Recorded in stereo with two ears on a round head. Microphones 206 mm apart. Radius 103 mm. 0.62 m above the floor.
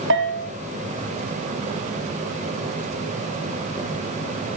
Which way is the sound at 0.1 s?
60° right (ahead or behind).